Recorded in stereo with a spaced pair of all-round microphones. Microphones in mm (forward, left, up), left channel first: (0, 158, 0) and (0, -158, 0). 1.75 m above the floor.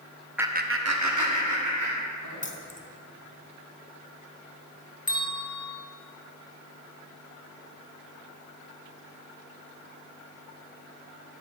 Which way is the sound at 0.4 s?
5° right (ahead or behind).